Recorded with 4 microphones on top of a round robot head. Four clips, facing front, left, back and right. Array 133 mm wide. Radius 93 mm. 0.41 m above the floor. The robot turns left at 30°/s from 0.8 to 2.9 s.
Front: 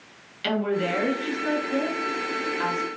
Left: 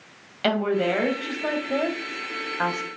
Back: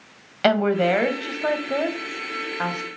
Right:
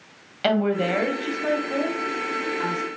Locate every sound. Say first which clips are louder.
0.4 s a woman speaking: right 1 dB, back 6 dB; straight behind, 3 m; by 2.9 s 120° left, 3 m